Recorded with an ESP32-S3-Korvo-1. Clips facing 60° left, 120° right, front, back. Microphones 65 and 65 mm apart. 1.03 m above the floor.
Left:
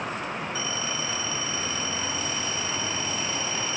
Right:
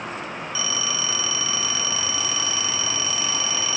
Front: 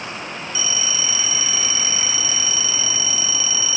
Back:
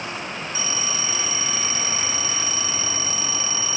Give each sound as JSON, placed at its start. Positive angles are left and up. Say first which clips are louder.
{"t": 0.6, "sound": "a phone ringing", "louder": "right 2 dB, front 3 dB", "azimuth_deg": -135, "distance_m": 0.5}